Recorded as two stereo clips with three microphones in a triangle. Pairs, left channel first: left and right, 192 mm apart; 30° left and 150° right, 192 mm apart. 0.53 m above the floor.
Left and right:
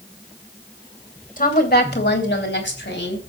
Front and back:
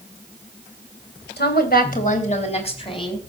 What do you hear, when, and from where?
1.4 s a woman speaking: 50° left, 2.5 m; by 3.2 s 95° left, 4 m